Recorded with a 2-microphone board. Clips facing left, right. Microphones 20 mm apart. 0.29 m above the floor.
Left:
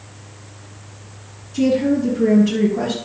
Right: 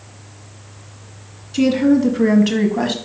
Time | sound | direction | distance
1.5 | a woman speaking | 55° right (ahead or behind) | 2.5 m